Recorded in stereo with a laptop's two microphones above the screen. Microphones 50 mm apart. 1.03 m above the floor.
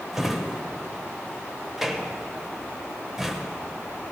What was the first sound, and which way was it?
A drawer, 5° right (ahead or behind).